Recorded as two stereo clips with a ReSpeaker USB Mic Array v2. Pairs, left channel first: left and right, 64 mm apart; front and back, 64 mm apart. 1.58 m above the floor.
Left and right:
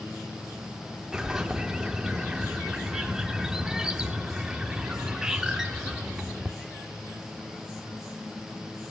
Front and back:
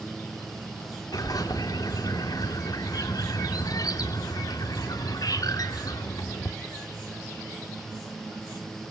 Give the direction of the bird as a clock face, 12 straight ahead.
12 o'clock.